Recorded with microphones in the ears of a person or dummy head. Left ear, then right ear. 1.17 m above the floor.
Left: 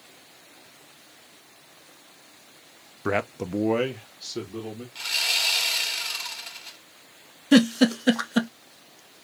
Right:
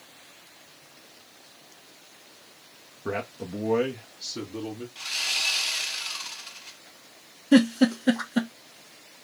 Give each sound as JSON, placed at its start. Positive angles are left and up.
{"t": 3.0, "sound": "a man speaking", "side_deg": 65, "distance_m": 0.6}
{"t": 5.0, "sound": "sawing", "side_deg": 30, "distance_m": 1.6}
{"t": 7.5, "sound": "a giggle", "side_deg": 30, "distance_m": 0.8}